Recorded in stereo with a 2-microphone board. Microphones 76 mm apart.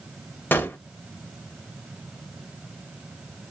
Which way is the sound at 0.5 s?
25° left (ahead or behind).